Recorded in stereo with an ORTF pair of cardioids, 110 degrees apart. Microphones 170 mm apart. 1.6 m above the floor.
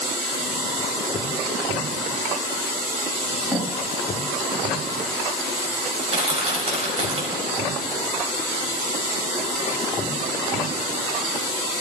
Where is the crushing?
40° right, 6.5 m.